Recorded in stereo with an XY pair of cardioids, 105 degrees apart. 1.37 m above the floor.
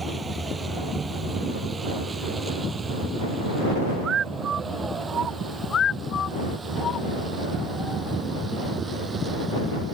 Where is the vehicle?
25° right; by 10.0 s 35° right.